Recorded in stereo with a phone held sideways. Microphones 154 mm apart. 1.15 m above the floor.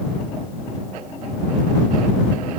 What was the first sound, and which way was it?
Only background noise.